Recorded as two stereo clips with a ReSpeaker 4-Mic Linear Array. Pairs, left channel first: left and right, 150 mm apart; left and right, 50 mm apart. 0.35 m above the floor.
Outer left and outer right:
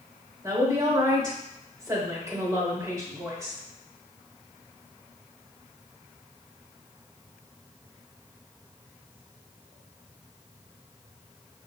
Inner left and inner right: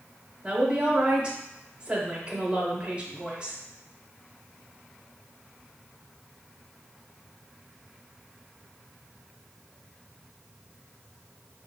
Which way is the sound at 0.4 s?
20° right (ahead or behind).